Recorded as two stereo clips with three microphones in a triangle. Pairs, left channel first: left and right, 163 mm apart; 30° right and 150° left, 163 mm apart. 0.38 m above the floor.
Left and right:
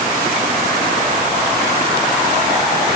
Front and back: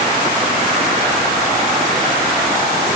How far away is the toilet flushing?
No toilet flushing in this recording.